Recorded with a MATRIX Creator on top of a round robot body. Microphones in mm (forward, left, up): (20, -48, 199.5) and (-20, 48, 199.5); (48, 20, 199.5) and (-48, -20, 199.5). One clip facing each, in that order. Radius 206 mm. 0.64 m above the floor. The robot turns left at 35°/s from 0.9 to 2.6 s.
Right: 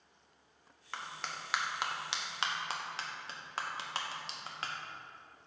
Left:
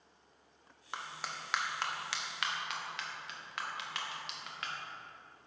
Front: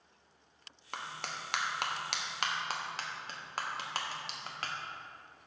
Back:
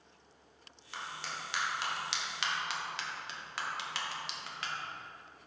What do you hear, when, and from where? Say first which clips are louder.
0.9 s a clap: even, front 1 dB; 40° left, 1.4 m; by 4.8 s 15° right, 1.4 m